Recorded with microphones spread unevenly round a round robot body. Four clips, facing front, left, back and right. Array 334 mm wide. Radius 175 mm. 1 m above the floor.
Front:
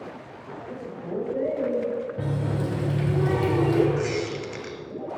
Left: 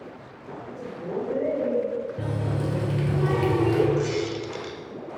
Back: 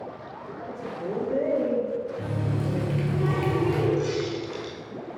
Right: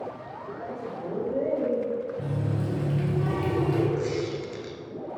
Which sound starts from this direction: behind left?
A man speaking, at 0.7 s.